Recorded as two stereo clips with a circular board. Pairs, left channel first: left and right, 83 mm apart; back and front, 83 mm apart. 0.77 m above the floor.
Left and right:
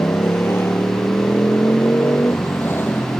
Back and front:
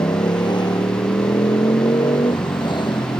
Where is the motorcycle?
150° left; by 3.2 s 155° left.